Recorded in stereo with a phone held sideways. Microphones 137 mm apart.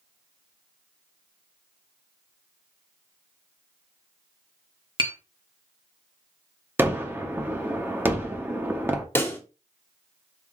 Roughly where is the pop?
Centre.